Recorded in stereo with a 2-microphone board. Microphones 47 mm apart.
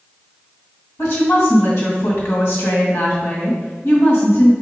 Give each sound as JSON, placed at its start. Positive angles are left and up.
{"t": 1.0, "sound": "a woman speaking", "side_deg": 65, "distance_m": 1.9}